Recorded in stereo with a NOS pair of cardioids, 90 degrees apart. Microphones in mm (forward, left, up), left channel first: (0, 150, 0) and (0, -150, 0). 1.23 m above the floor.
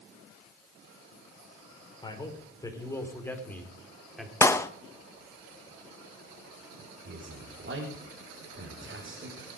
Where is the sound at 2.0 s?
15° left, 4 m; by 4.3 s straight ahead, 3.5 m.